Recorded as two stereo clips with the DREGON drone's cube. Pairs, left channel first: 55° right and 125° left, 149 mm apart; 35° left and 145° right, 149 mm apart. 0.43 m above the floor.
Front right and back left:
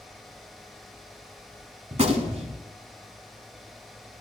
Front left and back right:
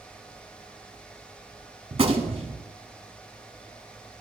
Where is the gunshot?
165° left, 1.1 m.